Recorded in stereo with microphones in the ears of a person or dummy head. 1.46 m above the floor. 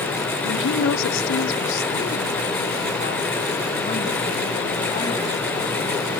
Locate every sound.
0.4 s a woman speaking: 55° left (ahead or behind), 0.9 m; by 6.2 s 30° left (ahead or behind), 3.5 m